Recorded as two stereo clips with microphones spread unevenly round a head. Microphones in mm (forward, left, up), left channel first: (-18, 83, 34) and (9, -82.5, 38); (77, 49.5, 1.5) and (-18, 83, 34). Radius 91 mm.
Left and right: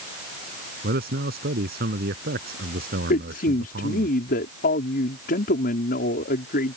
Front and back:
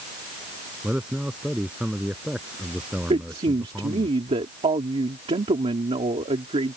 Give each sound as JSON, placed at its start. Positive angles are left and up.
{"t": 0.8, "sound": "a man speaking", "azimuth_deg": -115}
{"t": 3.1, "sound": "a man speaking", "azimuth_deg": 135}